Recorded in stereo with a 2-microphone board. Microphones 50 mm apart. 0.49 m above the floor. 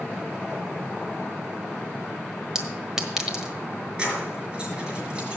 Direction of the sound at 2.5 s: 10° right (ahead or behind).